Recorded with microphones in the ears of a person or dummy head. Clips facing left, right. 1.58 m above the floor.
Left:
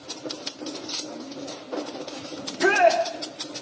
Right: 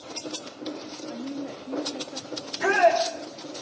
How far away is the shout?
About 4 m.